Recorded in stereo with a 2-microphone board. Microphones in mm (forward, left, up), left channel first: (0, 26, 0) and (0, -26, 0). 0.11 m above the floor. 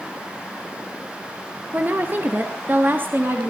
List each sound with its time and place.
1.7 s a woman speaking: 35° right (ahead or behind), 1.8 m; by 3.5 s 40° right (ahead or behind), 3.5 m